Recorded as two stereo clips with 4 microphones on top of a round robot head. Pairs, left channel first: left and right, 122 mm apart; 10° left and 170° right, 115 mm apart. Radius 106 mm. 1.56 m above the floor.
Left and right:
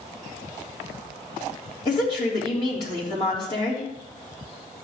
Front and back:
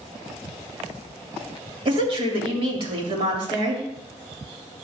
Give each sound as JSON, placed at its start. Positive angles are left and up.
{"t": 1.9, "sound": "a woman speaking", "azimuth_deg": 150, "distance_m": 2.5}